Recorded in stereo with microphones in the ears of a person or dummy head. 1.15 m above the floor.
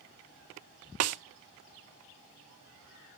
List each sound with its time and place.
1.0 s a snare drum: 75° right (ahead or behind), 0.8 m